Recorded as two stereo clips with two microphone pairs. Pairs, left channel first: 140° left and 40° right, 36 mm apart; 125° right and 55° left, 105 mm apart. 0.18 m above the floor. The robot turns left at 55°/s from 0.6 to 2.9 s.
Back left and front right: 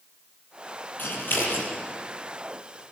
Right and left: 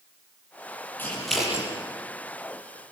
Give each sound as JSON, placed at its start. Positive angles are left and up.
{"t": 1.0, "sound": "scissors", "azimuth_deg": 165, "distance_m": 6.5}